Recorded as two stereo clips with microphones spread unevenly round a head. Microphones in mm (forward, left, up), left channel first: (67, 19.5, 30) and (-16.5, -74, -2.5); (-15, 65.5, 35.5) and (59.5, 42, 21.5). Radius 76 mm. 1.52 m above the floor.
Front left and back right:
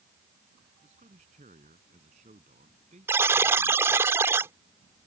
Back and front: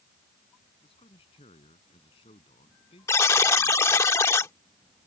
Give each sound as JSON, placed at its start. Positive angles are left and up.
{"t": 0.8, "sound": "a man speaking", "azimuth_deg": 180}
{"t": 3.1, "sound": "a buzzer", "azimuth_deg": 145}